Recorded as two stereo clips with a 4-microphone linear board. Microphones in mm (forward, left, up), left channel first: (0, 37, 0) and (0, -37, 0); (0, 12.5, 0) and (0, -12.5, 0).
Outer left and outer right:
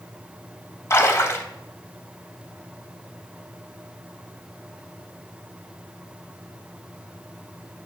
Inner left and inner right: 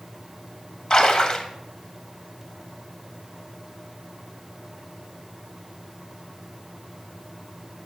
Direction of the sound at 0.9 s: 35° left (ahead or behind).